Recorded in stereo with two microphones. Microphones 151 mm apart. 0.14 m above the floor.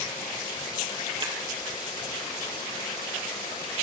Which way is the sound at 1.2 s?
35° right (ahead or behind).